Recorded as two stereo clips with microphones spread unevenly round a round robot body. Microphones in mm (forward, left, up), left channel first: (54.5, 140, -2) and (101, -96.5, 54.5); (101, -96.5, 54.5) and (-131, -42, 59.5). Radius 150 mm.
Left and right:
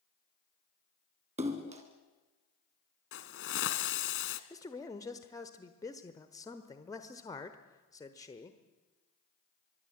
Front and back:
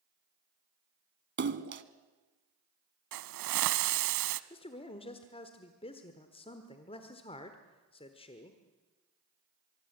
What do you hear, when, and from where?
1.4 s a splash: 150° right, 1.2 m
3.1 s a hiss: 155° left, 0.7 m
4.5 s a man speaking: 45° left, 1.2 m